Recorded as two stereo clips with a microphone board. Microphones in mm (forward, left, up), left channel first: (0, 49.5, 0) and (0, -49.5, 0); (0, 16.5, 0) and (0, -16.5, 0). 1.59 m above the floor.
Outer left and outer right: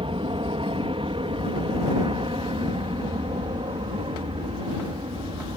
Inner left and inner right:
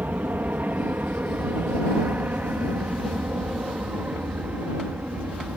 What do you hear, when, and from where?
0.0 s an aircraft: 65° right (ahead or behind)